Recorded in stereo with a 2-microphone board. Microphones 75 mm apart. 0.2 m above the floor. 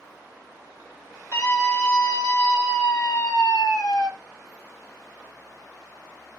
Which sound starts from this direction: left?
A scream, at 1.3 s.